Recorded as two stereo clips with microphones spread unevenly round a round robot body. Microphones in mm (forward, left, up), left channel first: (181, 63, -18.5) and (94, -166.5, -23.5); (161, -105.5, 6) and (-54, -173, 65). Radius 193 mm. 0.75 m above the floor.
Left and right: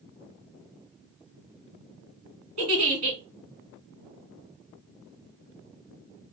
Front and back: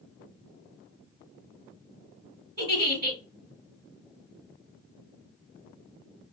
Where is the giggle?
115° right, 1.6 m.